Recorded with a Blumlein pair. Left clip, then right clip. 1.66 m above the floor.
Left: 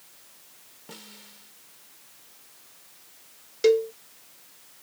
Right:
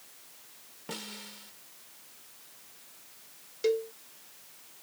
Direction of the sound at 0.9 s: 20° right.